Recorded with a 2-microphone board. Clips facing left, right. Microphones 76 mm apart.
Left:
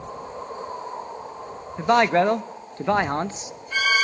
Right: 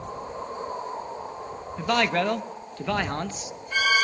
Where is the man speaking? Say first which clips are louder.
Left 6 dB; 30° left (ahead or behind), 0.6 m.